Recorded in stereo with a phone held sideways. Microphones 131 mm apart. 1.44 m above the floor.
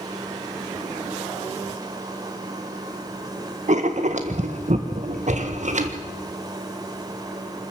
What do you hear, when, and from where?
0.0 s a machine running: 30° right (ahead or behind), 3 m
3.7 s writing: 60° right (ahead or behind), 1.7 m